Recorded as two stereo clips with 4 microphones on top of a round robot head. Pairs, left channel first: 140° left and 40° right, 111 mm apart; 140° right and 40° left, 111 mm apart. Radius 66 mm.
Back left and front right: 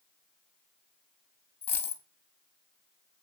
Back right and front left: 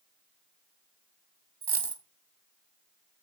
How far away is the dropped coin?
About 1.3 m.